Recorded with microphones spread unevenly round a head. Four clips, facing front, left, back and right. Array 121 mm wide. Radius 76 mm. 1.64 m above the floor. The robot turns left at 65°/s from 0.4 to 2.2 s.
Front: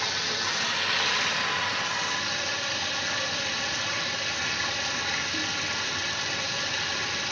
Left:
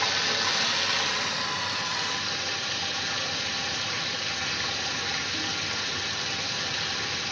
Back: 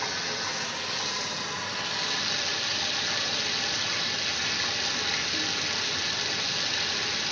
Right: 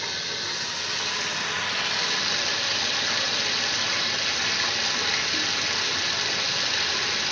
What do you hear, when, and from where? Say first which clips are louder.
0.0 s running water: left 6 dB, front 1 dB; 45° left, 2 m; by 7.3 s 75° right, 2 m